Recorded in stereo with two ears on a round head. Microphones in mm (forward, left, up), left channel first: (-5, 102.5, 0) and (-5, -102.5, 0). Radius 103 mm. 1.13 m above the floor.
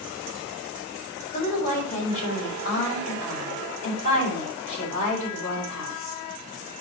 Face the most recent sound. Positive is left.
turn(degrees=35)  # may be behind; listen again after turning